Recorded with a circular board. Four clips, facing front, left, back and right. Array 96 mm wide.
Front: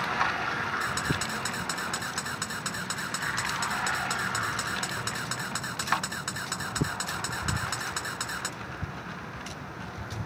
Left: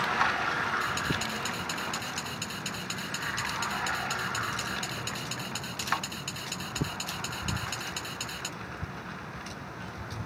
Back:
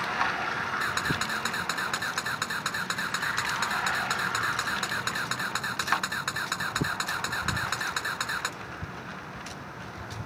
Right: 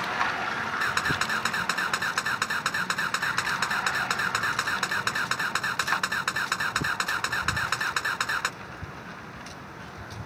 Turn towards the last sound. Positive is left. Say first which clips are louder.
# right 4 dB, back 1 dB
turn(degrees=-105)